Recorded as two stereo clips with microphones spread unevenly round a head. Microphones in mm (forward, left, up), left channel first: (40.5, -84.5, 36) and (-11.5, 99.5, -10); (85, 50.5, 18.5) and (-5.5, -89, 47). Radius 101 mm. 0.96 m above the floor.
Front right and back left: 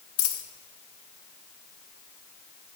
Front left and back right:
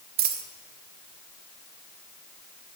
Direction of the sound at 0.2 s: 95° right.